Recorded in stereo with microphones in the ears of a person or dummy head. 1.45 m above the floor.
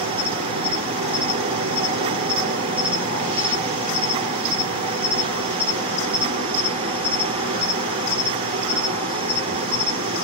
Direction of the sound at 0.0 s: 30° right (ahead or behind).